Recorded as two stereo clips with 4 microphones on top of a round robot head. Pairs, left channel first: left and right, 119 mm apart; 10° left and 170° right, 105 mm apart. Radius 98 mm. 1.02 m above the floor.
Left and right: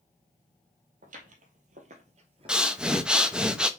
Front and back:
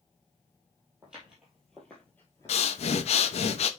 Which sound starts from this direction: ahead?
Breathing, at 2.5 s.